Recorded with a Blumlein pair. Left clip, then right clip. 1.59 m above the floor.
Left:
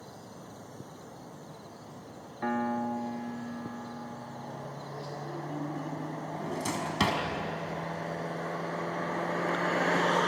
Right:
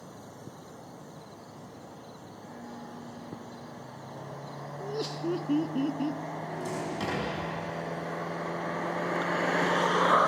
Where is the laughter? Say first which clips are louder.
Right 6 dB; 55° right, 1.1 m.